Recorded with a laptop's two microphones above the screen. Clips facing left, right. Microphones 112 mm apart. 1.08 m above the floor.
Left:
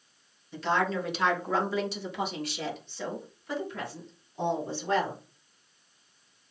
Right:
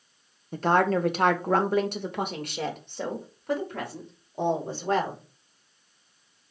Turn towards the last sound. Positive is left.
turn(degrees=-50)  # may be behind; listen again after turning